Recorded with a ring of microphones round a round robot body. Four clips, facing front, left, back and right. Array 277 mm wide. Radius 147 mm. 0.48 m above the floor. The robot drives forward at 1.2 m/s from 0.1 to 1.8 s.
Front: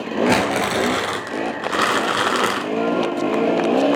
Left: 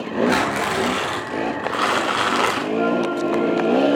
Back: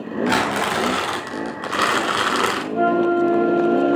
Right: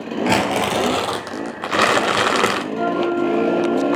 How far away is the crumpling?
About 3 m.